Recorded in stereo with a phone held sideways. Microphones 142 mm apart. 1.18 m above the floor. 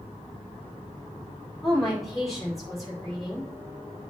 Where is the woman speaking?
Centre (ahead or behind), 4.5 m.